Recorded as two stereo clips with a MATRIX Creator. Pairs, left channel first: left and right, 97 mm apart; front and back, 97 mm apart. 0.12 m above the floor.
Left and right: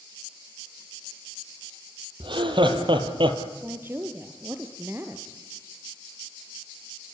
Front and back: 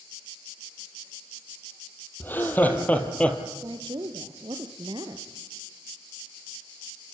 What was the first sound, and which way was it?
Laughter, 70° right.